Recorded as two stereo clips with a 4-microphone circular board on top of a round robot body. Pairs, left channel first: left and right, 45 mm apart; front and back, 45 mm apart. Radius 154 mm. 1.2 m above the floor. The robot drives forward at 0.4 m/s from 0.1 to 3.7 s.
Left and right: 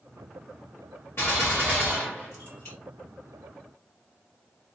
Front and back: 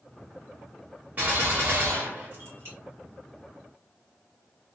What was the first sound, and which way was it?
A gunshot, 130° left.